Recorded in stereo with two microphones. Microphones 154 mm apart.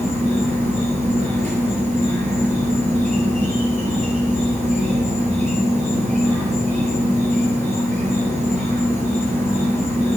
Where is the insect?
50° right (ahead or behind), 0.9 m.